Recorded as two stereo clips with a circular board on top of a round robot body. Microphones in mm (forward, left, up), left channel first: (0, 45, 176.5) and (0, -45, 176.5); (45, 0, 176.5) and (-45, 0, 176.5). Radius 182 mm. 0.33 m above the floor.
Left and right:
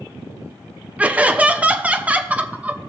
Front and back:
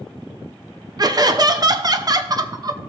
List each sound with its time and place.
1.0 s laughter: 160° right, 1.1 m